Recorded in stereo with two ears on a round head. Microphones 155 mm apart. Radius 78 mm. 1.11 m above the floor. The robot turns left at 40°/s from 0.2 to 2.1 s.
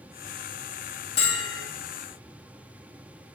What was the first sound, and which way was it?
A bell, 35° left (ahead or behind).